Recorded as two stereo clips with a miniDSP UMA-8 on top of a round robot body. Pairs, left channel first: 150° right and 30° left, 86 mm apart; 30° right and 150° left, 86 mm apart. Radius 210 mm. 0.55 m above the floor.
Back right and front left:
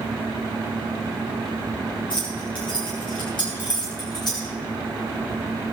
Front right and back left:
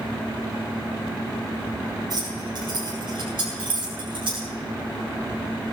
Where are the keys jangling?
170° right, 8.5 m; by 4.5 s 170° left, 7 m.